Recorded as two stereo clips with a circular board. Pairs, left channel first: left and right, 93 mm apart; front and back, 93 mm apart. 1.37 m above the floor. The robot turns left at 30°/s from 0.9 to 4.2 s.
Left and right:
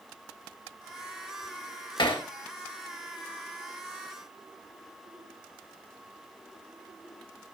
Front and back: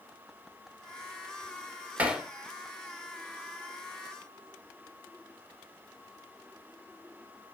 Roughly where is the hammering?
Left.